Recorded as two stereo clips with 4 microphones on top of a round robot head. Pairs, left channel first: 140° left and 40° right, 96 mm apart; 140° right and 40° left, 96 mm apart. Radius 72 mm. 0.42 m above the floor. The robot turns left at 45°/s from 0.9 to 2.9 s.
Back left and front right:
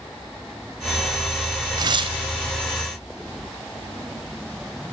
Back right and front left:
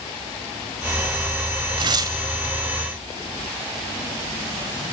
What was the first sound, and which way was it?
Tearing paper, 5° left.